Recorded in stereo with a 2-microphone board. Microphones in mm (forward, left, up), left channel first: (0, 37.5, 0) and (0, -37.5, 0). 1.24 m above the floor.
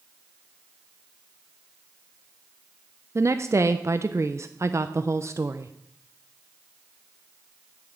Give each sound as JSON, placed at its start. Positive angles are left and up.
{"t": 3.1, "sound": "a woman speaking", "side_deg": -40, "distance_m": 0.5}